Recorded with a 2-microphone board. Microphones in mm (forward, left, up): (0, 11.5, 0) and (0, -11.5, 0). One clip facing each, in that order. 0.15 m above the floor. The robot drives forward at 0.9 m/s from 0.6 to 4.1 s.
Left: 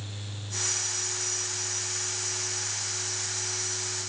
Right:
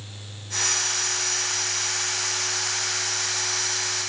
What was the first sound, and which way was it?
Only background noise.